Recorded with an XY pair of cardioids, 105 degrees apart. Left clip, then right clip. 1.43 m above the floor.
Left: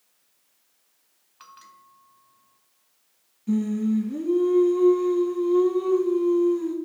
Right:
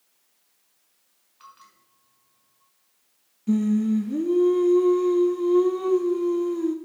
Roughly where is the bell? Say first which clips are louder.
Left 2 dB; ahead left.